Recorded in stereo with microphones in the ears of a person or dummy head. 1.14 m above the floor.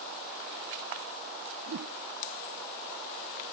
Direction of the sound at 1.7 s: 65° right (ahead or behind).